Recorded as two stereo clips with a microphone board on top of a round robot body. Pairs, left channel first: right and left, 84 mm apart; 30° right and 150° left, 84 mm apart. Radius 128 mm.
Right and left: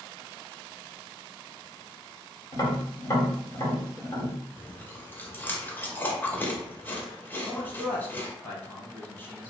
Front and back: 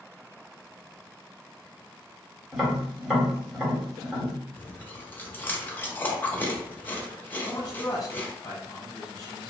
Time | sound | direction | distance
2.5 | tapping | 125° right | 1.4 m
4.6 | chewing | 60° right | 0.8 m
7.5 | a man speaking | 40° right | 0.9 m